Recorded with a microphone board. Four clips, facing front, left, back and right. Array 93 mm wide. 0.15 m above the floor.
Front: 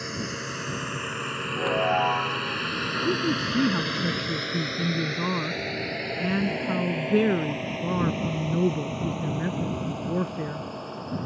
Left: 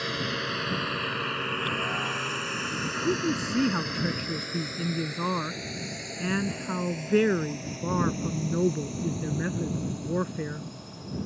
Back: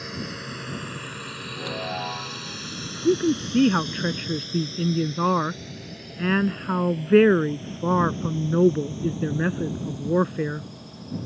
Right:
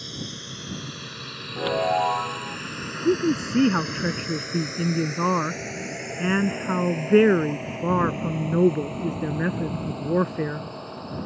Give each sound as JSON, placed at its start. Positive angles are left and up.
{"t": 0.0, "sound": "a drone", "azimuth_deg": 80}
{"t": 1.6, "sound": "a chime", "azimuth_deg": -60}
{"t": 3.0, "sound": "a woman speaking", "azimuth_deg": -145}